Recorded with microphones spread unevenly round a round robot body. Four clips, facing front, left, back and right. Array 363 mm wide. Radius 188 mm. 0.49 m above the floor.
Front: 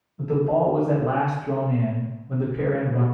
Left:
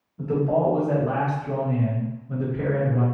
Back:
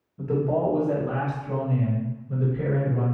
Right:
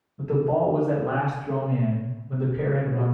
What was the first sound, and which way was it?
A man speaking, 165° right.